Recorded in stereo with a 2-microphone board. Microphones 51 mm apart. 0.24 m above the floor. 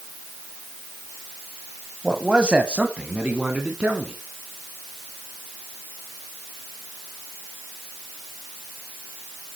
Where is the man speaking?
15° right (ahead or behind), 1.2 m; by 4.1 s 25° right (ahead or behind), 3 m.